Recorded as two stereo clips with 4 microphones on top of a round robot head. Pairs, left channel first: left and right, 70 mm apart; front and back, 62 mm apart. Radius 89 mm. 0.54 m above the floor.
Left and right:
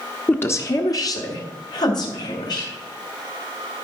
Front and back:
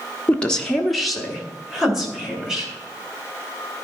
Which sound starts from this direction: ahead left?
A woman speaking, at 0.3 s.